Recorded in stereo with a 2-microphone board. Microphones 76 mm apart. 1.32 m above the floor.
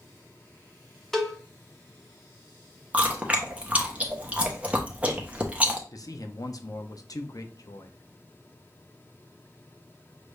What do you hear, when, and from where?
1.1 s a cowbell: 5° left (ahead or behind), 0.9 m
2.9 s chewing: 20° right (ahead or behind), 0.9 m
5.9 s a man speaking: 50° left (ahead or behind), 0.7 m